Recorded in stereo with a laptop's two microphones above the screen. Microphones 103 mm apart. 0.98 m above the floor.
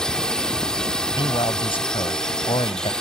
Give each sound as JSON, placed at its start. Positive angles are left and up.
{"t": 0.0, "sound": "a drone", "side_deg": 5}
{"t": 1.2, "sound": "a man speaking", "side_deg": 60}